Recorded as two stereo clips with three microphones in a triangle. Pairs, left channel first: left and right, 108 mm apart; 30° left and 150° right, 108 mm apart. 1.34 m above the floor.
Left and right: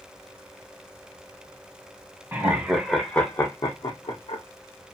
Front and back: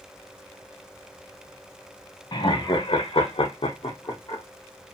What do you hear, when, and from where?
2.3 s laughter: 25° right, 0.7 m; by 4.4 s 85° left, 0.7 m